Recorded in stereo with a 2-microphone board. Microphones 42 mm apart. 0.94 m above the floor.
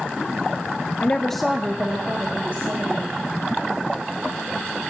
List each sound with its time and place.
1.0 s a woman speaking: 40° left (ahead or behind), 0.7 m; by 3.1 s 50° right (ahead or behind), 2.5 m